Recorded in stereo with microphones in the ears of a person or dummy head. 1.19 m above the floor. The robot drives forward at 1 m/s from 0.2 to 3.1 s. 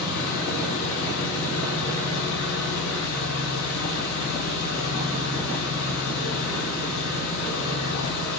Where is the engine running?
70° left (ahead or behind), 7.5 m; by 8.4 s 90° left, 7 m.